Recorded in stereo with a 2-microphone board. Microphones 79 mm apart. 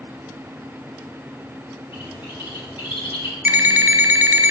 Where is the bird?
80° left, 5 m.